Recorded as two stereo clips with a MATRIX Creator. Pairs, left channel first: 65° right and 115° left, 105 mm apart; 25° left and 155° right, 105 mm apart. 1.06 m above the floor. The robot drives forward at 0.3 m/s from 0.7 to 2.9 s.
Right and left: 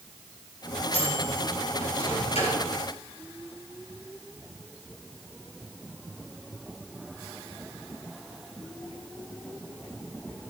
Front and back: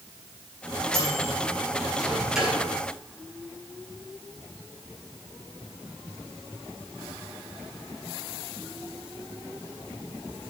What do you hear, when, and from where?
0.9 s a microwave: 65° right, 2.5 m; by 2.6 s 75° right, 2 m